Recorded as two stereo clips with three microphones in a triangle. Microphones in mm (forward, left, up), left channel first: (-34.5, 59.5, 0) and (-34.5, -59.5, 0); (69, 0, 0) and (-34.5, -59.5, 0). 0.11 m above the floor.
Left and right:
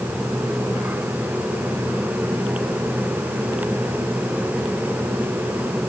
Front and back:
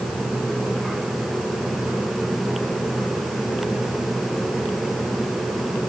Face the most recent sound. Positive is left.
No sound to turn to.